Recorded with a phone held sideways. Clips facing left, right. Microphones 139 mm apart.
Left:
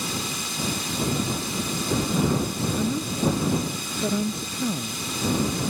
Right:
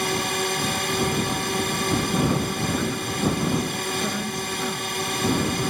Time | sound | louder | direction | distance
0.0 | a drone | right 7 dB | 65° right (ahead or behind) | ?
2.8 | a woman speaking | left 1 dB | 25° left (ahead or behind) | ?